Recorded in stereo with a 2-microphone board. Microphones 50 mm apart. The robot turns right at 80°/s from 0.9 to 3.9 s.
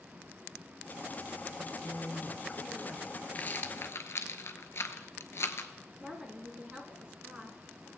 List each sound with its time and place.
1.6 s a man speaking: 15° left (ahead or behind), 1.0 m; by 3.2 s centre (ahead or behind), 1.0 m
3.4 s a rattle: 30° left (ahead or behind), 0.7 m; by 5.7 s 60° left (ahead or behind), 0.7 m
6.0 s a woman speaking: 25° right (ahead or behind), 1.5 m